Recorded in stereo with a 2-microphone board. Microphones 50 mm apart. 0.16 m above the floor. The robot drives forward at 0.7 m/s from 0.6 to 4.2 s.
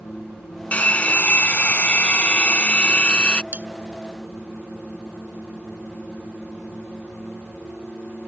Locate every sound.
0.7 s a hair dryer: 30° left (ahead or behind); by 3.4 s 25° left (ahead or behind)
3.5 s cutlery clinking: 35° right (ahead or behind)